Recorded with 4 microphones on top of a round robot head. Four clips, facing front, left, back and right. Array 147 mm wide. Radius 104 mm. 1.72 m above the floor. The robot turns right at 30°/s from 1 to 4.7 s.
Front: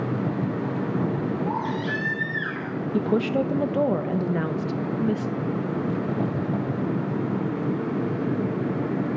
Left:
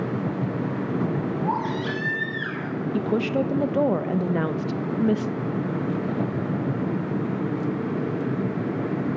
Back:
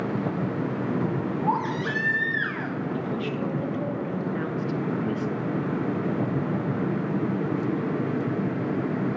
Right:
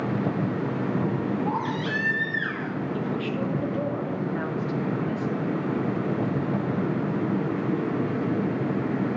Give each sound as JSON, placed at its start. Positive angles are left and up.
{"t": 1.4, "sound": "a baby crying", "azimuth_deg": 140, "distance_m": 2.0}
{"t": 2.9, "sound": "a woman speaking", "azimuth_deg": 30, "distance_m": 0.7}